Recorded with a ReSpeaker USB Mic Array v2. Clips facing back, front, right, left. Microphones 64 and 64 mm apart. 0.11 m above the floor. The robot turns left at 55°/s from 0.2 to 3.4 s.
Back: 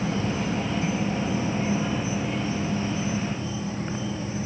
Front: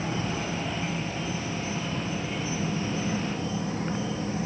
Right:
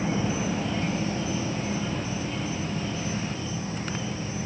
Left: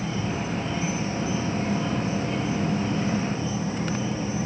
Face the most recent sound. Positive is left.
turn(degrees=25)